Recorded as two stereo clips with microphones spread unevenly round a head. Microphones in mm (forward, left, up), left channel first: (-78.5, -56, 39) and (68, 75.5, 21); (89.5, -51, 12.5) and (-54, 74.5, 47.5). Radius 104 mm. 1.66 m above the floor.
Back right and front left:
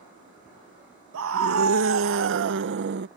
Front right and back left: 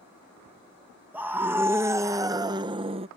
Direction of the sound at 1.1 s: 60° left.